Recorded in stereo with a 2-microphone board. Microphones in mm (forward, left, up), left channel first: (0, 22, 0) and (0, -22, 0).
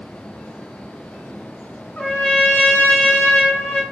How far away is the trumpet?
About 1.2 m.